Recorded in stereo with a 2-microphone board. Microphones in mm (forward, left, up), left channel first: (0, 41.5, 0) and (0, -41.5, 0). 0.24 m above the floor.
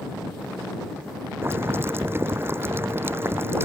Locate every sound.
1.4 s boiling: 30° right (ahead or behind)